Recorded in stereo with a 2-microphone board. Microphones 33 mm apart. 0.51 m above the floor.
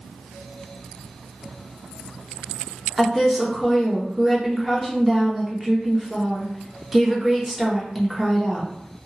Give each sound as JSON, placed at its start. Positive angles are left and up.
{"t": 3.0, "sound": "a woman speaking", "side_deg": -5, "distance_m": 0.8}